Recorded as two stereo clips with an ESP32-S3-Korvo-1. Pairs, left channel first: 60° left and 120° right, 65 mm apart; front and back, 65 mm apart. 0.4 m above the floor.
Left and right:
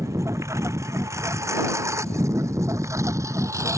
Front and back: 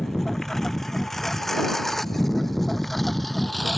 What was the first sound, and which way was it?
A lawn mower, 85° right.